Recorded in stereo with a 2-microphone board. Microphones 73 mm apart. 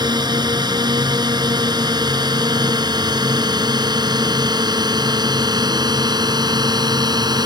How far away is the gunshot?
I don't hear a gunshot.